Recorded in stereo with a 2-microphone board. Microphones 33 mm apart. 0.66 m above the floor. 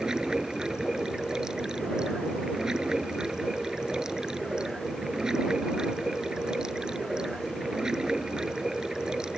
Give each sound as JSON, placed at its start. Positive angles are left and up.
{"t": 0.0, "sound": "running water", "side_deg": -20}